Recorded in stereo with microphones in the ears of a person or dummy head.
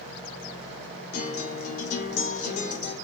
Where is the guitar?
50° left (ahead or behind), 1.1 m.